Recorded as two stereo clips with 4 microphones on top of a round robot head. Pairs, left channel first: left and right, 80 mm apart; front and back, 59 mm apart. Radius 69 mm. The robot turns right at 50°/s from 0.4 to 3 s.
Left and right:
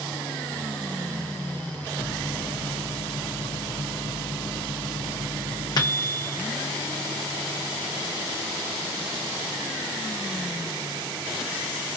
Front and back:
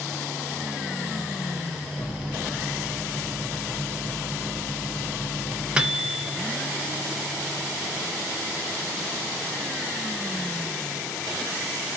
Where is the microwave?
55° left, 0.9 m; by 6.4 s 110° left, 0.9 m.